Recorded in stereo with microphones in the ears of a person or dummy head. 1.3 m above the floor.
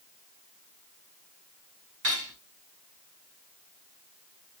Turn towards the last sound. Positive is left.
turn(degrees=-55)  # may be behind; listen again after turning